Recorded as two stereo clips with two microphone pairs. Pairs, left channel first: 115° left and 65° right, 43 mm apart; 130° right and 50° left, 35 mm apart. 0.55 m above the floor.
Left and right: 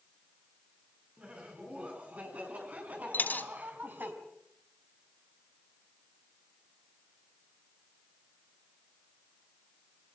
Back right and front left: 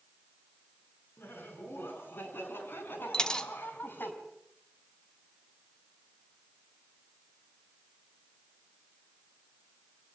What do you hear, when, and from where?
1.2 s laughter: 125° right, 7 m; by 4.1 s 110° right, 5 m
3.1 s a dropped coin: 160° left, 1.5 m